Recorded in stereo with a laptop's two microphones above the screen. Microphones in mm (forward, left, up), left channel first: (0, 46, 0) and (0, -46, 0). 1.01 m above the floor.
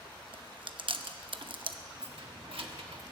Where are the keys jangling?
75° right (ahead or behind), 1.3 m.